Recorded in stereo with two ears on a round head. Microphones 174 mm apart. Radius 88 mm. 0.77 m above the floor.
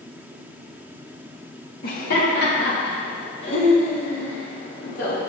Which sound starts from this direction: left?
Laughter, at 1.8 s.